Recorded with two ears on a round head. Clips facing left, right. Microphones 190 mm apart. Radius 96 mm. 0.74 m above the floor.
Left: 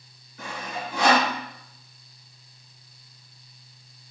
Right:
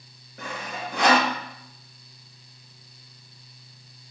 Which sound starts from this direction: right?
Sawing, at 0.4 s.